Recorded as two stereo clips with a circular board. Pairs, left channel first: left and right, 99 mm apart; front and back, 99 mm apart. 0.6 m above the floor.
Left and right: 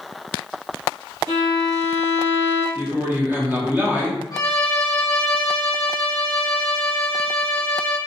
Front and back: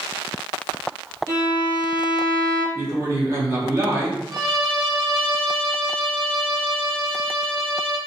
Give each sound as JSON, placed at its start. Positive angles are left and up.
{"t": 1.3, "sound": "a violin", "azimuth_deg": -130, "distance_m": 1.2}
{"t": 2.8, "sound": "a man speaking", "azimuth_deg": -145, "distance_m": 0.8}
{"t": 4.3, "sound": "a violin", "azimuth_deg": 130, "distance_m": 0.8}